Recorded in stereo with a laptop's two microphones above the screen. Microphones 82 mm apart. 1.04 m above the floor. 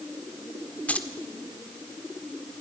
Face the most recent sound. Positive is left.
turn(degrees=15)  # may be behind; listen again after turning